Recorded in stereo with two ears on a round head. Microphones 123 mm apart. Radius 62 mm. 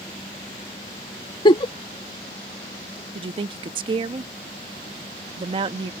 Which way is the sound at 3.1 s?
35° right (ahead or behind).